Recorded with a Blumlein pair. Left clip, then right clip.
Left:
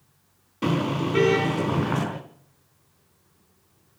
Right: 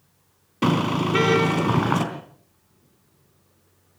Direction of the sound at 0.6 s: 70° right.